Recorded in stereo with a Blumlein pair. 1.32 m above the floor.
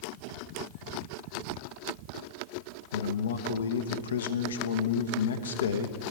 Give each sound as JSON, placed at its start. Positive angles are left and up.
{"t": 2.9, "sound": "a man speaking", "azimuth_deg": 65, "distance_m": 0.9}